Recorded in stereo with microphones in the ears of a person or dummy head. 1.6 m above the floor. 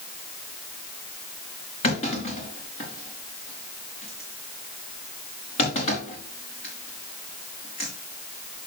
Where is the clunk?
30° left (ahead or behind), 3.5 m.